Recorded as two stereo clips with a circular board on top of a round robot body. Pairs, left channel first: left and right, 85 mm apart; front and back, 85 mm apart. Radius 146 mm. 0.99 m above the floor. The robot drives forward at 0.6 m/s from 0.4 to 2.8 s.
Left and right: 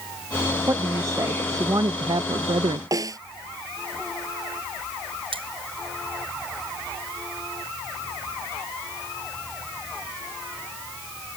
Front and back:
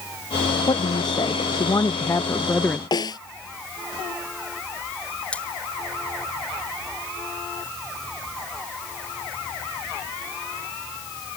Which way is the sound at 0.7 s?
30° right.